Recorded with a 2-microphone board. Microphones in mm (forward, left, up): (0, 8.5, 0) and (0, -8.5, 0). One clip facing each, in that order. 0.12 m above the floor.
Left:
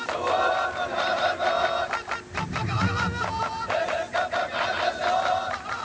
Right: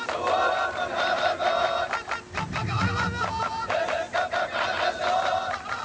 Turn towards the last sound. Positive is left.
turn(degrees=20)  # may be behind; listen again after turning